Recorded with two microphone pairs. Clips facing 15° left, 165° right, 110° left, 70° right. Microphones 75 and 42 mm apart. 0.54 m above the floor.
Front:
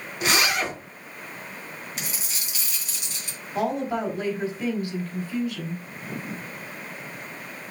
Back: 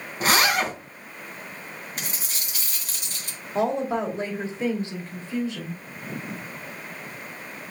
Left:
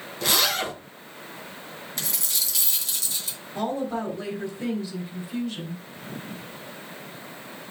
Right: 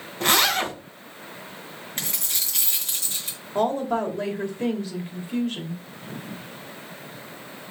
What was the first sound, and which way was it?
A zipper, 120° right.